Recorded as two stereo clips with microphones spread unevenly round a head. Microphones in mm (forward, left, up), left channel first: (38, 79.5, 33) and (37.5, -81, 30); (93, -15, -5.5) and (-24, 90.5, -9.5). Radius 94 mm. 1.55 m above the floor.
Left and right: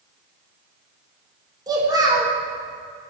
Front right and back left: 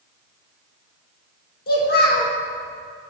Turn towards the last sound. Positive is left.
turn(degrees=-25)